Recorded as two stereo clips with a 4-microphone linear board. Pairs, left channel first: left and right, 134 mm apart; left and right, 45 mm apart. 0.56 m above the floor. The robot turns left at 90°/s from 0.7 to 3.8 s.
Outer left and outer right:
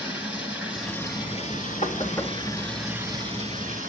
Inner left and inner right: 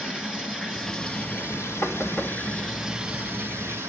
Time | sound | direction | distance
0.0 | running water | 170° right | 6.5 m
1.8 | knocking | 55° left (ahead or behind) | 2.5 m